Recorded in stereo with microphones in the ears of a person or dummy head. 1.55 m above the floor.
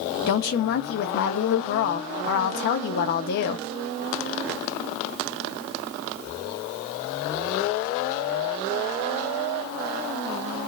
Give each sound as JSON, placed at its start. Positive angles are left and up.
{"t": 0.3, "sound": "a woman speaking", "side_deg": 45, "distance_m": 0.6}